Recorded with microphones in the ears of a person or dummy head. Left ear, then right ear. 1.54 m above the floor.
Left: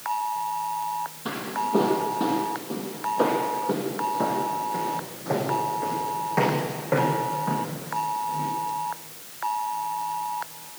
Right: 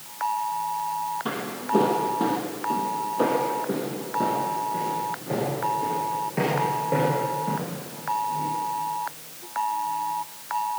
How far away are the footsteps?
About 3.5 m.